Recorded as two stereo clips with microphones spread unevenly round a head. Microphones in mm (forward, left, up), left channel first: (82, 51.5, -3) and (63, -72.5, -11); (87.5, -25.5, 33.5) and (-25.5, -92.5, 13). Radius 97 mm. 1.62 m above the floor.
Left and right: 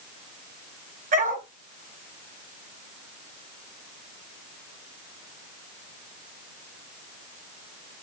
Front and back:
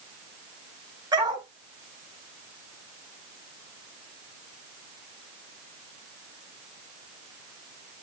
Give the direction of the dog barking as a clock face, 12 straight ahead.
3 o'clock.